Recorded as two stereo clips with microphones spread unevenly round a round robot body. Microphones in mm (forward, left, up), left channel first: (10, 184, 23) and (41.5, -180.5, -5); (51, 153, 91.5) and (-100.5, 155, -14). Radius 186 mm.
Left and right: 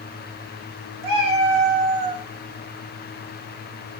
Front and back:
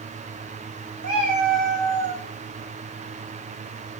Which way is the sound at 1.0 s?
50° right.